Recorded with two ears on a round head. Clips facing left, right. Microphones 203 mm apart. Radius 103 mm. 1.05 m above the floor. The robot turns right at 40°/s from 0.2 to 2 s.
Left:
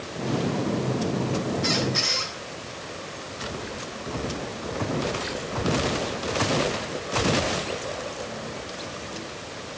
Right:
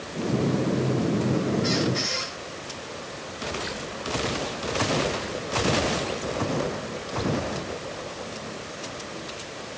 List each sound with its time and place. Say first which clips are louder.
1.6 s a squeak: right 2 dB; 65° left (ahead or behind), 7.5 m; by 2.3 s 50° left (ahead or behind), 7.5 m